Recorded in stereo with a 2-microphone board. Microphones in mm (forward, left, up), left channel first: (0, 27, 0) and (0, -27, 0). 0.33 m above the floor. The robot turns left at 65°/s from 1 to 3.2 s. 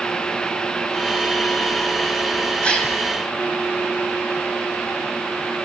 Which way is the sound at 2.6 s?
25° left (ahead or behind).